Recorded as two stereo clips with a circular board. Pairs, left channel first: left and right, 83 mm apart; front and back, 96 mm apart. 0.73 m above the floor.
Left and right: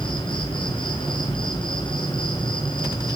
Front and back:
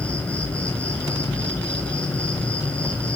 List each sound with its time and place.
0.0 s an insect: 80° left, 6 m